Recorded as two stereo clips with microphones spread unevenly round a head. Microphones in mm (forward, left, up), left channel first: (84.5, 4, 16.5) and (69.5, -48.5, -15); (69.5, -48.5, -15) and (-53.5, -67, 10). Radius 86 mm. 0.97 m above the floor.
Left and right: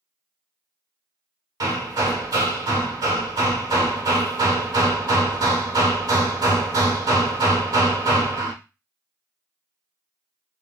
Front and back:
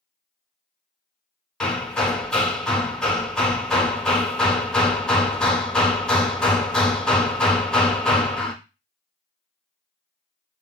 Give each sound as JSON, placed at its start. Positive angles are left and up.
{"t": 1.6, "sound": "hammering", "azimuth_deg": -85, "distance_m": 0.8}